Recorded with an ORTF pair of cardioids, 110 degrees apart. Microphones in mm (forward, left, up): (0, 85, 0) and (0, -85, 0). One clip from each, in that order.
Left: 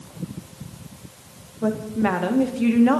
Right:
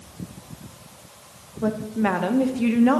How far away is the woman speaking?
About 1.6 m.